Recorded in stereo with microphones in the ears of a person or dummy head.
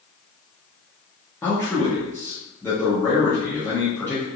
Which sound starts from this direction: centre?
A man speaking, at 1.4 s.